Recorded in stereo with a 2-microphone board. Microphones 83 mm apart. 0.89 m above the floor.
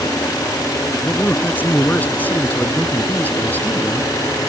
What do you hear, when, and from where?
1.0 s a man speaking: 20° left (ahead or behind)